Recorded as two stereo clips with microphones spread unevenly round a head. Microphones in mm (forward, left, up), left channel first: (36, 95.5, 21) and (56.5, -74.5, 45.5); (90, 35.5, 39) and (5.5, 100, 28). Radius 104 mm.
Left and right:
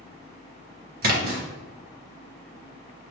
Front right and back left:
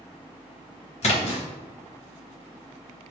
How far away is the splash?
About 1.1 m.